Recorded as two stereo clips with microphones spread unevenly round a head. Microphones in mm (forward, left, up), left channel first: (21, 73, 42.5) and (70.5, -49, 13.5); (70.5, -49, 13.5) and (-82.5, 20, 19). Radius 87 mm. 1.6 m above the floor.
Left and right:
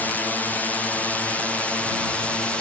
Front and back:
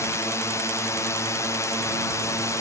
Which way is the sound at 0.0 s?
20° left.